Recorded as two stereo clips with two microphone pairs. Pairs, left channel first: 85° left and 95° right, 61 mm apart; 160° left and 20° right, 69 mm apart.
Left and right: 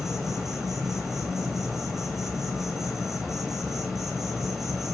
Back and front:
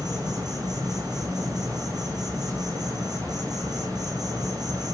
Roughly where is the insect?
Ahead.